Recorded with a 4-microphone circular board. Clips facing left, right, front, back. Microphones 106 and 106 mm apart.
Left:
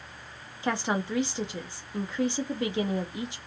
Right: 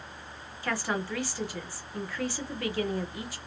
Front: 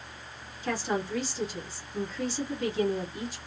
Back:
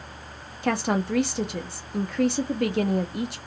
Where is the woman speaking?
160° left, 0.5 m.